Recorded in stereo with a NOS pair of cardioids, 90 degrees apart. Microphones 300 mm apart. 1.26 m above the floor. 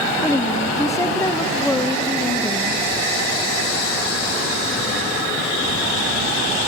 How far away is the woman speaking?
About 1.4 m.